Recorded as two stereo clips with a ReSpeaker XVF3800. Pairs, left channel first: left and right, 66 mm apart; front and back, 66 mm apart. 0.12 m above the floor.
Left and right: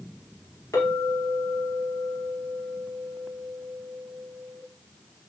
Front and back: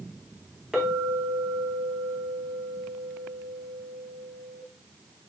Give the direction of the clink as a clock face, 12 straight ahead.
9 o'clock.